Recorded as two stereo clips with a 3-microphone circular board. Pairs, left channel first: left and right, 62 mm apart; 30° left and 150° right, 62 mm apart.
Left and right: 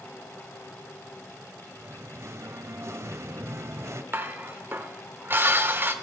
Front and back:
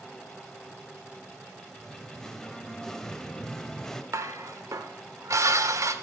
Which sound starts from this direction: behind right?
Dishes clattering, at 4.1 s.